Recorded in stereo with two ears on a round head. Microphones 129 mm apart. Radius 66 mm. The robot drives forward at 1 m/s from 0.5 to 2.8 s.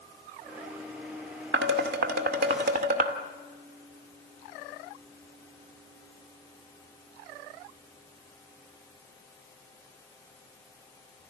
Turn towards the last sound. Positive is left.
turn(degrees=-65)  # may be behind; listen again after turning